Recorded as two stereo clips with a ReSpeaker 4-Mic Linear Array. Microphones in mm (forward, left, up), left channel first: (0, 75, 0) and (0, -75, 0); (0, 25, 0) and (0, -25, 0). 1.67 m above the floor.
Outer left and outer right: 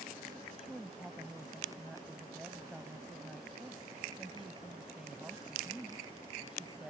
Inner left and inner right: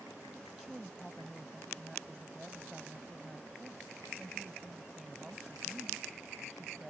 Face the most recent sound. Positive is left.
turn(degrees=-5)  # may be behind; listen again after turning